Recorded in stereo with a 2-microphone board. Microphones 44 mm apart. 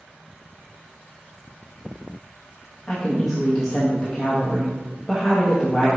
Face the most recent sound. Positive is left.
turn(degrees=15)  # may be behind; listen again after turning